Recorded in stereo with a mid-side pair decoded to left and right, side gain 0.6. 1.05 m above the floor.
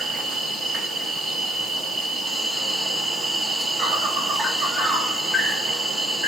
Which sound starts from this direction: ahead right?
An insect, at 0.0 s.